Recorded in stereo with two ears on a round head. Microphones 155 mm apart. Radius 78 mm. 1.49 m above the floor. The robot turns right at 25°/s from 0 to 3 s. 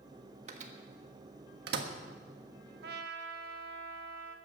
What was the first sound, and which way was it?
A microwave, 40° right (ahead or behind).